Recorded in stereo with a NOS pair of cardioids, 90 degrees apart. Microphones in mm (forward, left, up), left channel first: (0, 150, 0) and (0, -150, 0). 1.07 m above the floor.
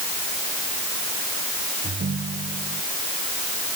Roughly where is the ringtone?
Ahead right.